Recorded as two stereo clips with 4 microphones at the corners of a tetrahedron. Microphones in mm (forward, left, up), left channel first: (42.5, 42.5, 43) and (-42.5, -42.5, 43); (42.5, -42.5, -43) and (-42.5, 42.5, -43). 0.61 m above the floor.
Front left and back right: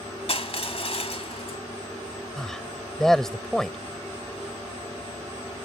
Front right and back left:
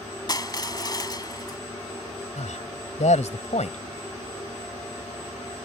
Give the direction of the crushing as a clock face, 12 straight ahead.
12 o'clock.